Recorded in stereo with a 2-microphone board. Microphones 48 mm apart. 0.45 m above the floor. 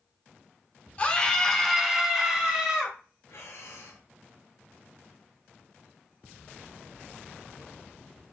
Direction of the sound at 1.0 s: 30° left (ahead or behind).